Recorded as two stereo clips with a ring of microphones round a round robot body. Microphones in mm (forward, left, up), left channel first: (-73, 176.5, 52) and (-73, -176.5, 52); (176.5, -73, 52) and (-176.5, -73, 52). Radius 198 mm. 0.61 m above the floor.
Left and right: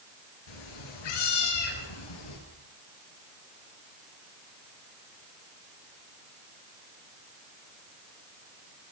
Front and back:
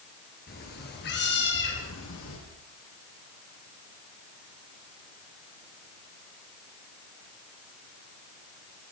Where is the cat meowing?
70° left, 5.5 m; by 2.4 s 60° left, 6.5 m.